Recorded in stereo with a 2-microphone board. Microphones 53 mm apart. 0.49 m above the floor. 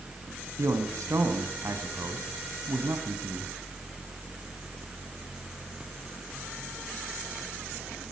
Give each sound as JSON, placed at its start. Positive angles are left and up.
{"t": 0.6, "sound": "a man speaking", "side_deg": -75, "distance_m": 3.0}